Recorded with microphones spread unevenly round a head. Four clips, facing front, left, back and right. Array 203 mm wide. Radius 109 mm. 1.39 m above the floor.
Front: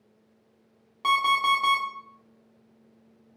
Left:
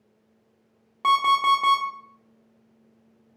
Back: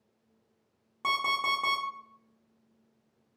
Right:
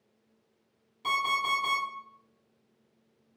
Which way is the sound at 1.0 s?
110° left.